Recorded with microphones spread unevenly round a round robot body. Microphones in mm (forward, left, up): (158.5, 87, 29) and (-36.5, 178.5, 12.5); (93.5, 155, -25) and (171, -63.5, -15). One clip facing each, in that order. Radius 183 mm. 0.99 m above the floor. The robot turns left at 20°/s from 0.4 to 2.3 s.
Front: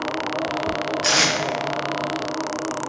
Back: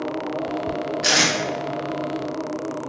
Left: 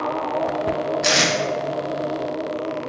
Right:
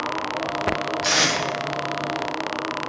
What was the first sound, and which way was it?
Tape being pulled, 80° left.